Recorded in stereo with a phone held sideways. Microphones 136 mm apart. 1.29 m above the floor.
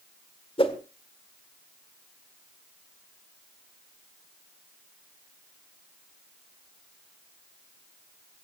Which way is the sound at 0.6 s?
40° left (ahead or behind).